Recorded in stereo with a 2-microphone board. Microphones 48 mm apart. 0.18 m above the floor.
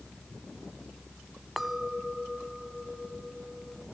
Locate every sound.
1.6 s a clink: 5° right (ahead or behind), 0.6 m